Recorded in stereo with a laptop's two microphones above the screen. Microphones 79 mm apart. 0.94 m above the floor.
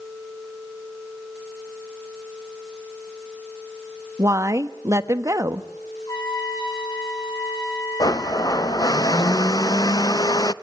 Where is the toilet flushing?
No toilet flushing in this recording.